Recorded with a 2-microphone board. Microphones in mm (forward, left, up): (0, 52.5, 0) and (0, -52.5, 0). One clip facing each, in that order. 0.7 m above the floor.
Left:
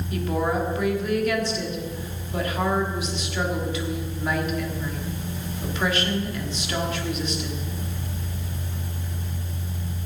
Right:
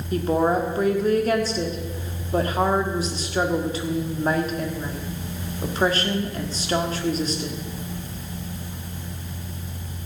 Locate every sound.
0.1 s a woman speaking: 35° right (ahead or behind), 1.6 m